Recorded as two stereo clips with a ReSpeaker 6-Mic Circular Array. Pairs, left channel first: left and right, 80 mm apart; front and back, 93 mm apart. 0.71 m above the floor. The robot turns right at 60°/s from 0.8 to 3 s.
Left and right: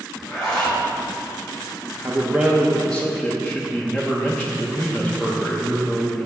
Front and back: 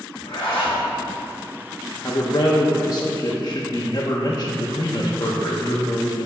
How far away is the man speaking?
About 0.8 m.